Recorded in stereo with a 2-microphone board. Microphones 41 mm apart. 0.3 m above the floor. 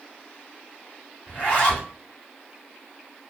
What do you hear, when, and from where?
1.3 s a zipper: 25° left (ahead or behind), 1.4 m